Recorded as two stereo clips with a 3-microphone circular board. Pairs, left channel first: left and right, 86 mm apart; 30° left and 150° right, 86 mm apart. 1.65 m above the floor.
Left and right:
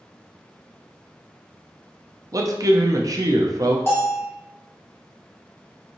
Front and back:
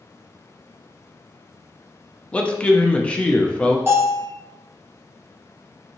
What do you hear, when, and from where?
2.3 s a man speaking: 45° right, 0.5 m
3.9 s a bell: 150° left, 1.3 m